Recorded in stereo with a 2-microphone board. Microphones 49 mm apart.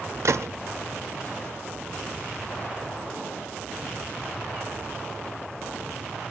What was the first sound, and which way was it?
A gunshot, 70° right (ahead or behind).